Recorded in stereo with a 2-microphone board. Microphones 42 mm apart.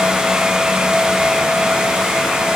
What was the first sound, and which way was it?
Only background noise.